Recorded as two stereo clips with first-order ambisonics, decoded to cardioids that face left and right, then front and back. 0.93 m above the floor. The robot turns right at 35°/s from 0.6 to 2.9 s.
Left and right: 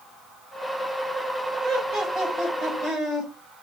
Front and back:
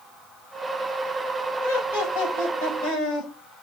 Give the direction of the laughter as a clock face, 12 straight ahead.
2 o'clock.